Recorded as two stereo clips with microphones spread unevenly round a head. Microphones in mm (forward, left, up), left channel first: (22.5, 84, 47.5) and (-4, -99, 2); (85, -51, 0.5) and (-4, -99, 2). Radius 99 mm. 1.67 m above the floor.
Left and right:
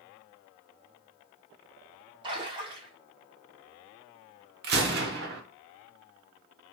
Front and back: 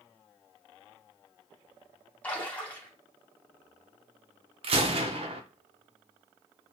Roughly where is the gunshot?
Behind right.